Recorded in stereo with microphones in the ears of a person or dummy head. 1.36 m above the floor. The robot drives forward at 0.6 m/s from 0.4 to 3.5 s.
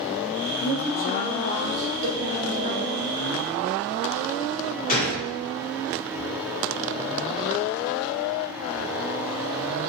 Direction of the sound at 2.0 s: 45° right (ahead or behind).